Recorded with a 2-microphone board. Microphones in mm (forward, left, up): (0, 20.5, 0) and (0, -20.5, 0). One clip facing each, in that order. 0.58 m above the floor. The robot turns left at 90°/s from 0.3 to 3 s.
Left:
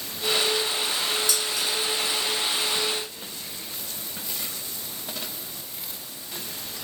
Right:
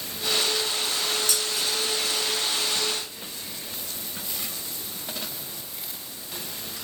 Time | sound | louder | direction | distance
1.3 | dishes clattering | left 1 dB | 45° right (ahead or behind) | 2.5 m